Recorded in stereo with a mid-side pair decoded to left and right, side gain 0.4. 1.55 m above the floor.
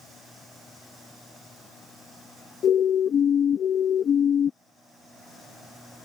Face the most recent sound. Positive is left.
turn(degrees=60)